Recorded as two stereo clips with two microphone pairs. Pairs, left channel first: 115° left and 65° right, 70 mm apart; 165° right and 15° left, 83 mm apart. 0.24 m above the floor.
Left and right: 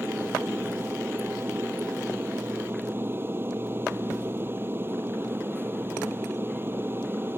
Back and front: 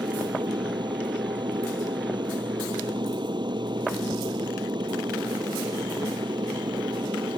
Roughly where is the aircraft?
Ahead.